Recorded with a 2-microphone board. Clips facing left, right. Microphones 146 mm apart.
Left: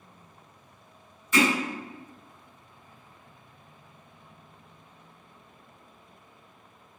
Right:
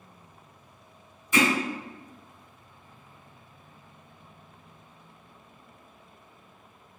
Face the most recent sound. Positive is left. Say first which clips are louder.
# even
turn(degrees=-15)  # may be behind; listen again after turning